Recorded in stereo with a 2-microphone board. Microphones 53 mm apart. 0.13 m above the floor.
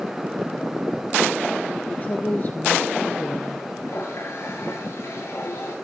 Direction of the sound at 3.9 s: 70° left (ahead or behind).